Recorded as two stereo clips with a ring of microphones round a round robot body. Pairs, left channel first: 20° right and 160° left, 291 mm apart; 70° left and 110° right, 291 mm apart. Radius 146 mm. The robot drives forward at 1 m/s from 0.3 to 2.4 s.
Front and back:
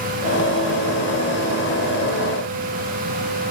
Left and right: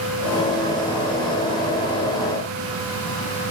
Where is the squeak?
No squeak in this recording.